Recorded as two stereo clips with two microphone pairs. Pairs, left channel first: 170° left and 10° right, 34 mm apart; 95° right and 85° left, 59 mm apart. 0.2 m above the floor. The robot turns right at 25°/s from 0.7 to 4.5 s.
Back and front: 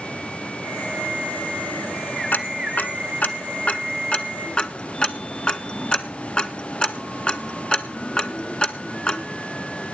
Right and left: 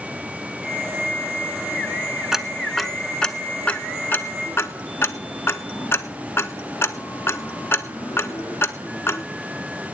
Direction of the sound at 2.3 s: 170° left.